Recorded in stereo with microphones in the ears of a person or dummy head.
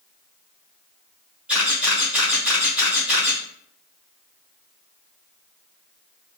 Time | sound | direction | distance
1.5 | a camera shutter | 5° right (ahead or behind) | 1.3 m